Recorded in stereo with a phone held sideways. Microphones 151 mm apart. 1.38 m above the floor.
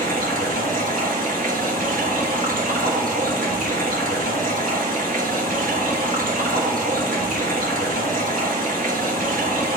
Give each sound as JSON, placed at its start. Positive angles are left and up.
{"t": 0.0, "sound": "running water", "side_deg": -70, "distance_m": 1.4}